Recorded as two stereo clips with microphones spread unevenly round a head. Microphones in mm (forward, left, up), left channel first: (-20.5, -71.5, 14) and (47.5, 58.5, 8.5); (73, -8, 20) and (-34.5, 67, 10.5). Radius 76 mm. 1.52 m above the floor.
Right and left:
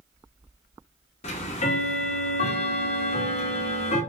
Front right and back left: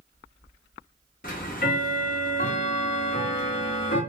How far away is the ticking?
About 0.5 m.